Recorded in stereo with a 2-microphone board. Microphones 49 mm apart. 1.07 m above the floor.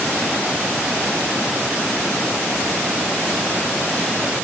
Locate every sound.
Only background noise.